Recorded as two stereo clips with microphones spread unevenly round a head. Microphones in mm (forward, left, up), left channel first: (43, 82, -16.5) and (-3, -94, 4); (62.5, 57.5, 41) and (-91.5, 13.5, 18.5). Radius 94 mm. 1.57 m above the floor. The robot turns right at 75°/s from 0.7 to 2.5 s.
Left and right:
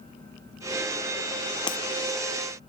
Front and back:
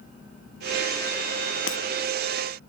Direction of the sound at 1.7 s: 10° left.